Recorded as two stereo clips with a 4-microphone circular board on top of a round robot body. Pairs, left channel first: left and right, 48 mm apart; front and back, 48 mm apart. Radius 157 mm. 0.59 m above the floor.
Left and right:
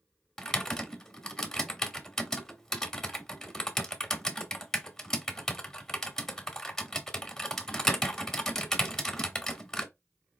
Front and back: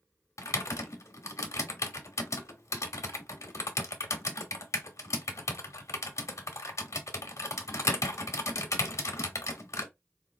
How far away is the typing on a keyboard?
About 0.8 m.